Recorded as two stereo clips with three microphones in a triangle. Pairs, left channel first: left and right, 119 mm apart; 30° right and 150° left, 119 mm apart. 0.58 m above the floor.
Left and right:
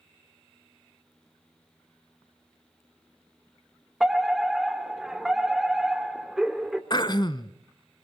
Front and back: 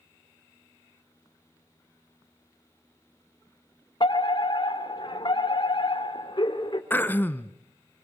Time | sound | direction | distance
4.0 | a fire alarm | 5° right | 2.5 m
6.9 | throat clearing | 40° left | 1.0 m